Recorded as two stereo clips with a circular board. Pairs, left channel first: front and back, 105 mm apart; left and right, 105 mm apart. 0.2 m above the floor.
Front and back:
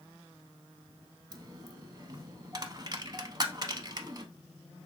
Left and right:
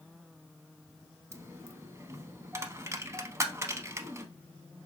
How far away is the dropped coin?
About 0.5 m.